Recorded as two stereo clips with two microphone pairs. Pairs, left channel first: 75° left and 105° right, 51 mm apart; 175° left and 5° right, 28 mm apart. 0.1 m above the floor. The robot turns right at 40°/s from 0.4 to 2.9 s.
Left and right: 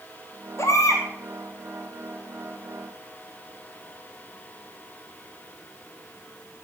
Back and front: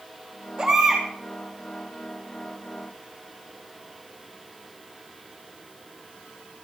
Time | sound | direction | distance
0.6 | a baby crying | 65° left | 3 m